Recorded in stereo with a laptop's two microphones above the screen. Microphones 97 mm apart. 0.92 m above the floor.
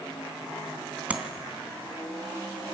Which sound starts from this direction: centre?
Tapping, at 1.1 s.